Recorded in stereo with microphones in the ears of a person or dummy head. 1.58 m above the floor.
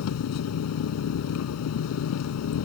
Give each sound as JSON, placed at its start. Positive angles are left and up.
{"t": 0.0, "sound": "an engine running", "side_deg": 90}